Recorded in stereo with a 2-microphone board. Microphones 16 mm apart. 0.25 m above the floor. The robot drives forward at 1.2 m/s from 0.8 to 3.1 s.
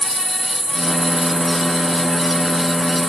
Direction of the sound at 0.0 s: 45° left (ahead or behind).